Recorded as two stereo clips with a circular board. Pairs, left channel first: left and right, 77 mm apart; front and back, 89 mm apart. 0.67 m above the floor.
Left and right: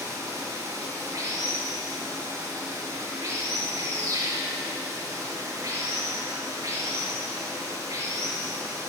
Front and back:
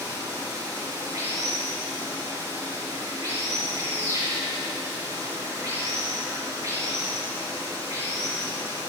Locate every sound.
0.0 s running water: 130° right, 5.5 m